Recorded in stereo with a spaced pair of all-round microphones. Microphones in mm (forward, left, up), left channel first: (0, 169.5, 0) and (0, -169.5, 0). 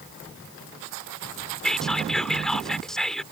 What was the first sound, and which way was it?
Whispering, centre (ahead or behind).